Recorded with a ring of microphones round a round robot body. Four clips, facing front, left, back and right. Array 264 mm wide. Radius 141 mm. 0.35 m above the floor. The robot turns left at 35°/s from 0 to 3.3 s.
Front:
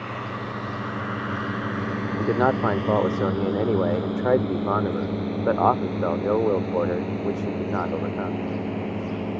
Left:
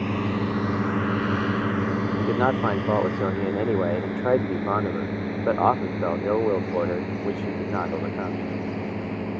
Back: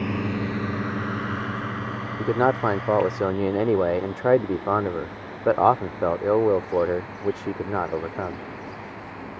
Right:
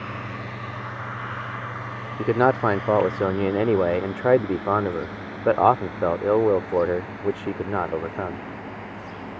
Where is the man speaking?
80° right; by 8.4 s 120° right.